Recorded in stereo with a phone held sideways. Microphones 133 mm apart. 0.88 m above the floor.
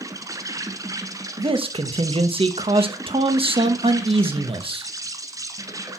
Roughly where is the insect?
Right.